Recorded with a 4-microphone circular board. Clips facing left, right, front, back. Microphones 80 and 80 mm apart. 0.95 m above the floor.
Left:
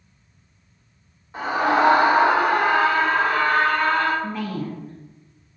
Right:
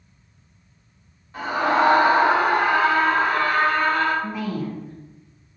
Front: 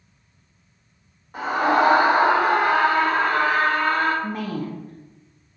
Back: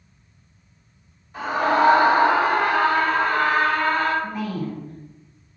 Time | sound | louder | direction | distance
1.3 | a scream | left 1 dB, front 1 dB | 25° left | 1.3 m
4.2 | a woman speaking | right 1 dB, even | 10° right | 0.9 m